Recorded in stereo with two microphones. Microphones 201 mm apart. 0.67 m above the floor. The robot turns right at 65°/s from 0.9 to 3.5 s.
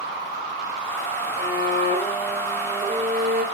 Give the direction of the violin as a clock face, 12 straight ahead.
9 o'clock.